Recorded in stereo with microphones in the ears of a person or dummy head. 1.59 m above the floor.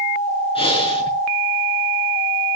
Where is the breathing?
30° left (ahead or behind), 5 m.